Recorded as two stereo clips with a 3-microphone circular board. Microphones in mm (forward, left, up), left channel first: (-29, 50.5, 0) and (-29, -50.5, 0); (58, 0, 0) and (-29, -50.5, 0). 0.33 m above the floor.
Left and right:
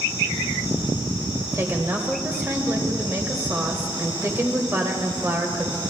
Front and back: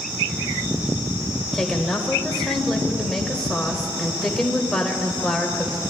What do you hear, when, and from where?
1.5 s a woman speaking: 50° right, 0.9 m